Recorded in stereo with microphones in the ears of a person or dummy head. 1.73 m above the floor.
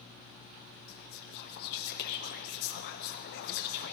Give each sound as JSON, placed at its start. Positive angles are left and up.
{"t": 0.9, "sound": "whispering", "side_deg": 60, "distance_m": 0.5}